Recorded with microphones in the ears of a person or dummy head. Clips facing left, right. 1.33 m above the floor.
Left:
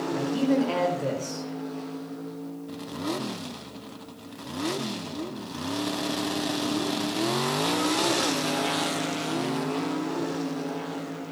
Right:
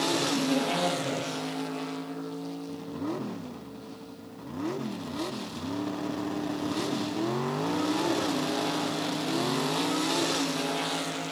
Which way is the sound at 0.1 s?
70° left (ahead or behind).